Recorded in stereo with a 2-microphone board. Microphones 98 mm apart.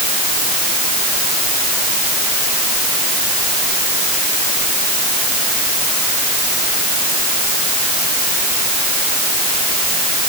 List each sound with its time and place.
Only background noise.